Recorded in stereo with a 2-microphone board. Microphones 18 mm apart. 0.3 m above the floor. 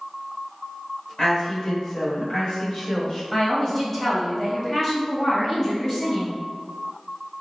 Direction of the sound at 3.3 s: 25° left (ahead or behind).